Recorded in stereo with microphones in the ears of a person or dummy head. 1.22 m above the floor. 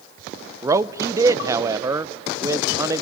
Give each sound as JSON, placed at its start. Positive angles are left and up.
{"t": 0.6, "sound": "a man speaking", "side_deg": -15, "distance_m": 0.5}